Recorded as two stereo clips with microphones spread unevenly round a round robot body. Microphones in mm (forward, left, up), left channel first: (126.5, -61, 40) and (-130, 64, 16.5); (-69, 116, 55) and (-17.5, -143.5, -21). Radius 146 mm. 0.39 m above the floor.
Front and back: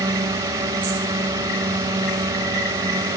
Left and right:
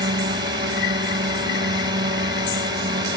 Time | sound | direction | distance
0.0 | a drone | 135° right | ?